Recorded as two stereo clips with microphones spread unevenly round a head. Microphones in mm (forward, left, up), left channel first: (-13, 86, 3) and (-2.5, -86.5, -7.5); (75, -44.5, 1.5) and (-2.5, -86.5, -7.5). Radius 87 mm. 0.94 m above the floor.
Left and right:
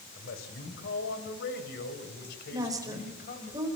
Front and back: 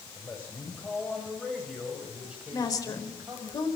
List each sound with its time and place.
0.2 s a man speaking: 105° left, 4 m; by 3.5 s 135° left, 4.5 m
2.5 s a woman speaking: 15° right, 4.5 m